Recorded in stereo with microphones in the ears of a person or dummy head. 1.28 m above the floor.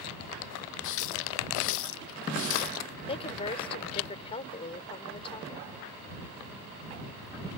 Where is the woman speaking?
30° left (ahead or behind).